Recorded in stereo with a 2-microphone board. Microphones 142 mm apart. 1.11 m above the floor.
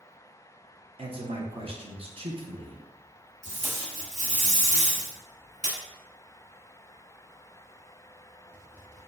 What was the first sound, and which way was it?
A man speaking, 40° right (ahead or behind).